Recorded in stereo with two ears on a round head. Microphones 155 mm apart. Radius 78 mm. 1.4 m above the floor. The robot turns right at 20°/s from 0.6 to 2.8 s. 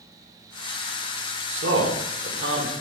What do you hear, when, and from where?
1.5 s a man speaking: 80° right, 0.9 m; by 2.7 s 55° right (ahead or behind), 0.9 m